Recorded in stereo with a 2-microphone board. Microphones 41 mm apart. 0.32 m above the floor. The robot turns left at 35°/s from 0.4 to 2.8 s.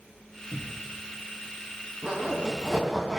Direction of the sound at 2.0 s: 30° right (ahead or behind).